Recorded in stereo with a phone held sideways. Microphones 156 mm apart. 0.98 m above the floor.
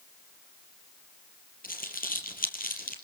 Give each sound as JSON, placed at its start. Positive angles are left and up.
{"t": 1.6, "sound": "crumpling", "side_deg": 65, "distance_m": 4.5}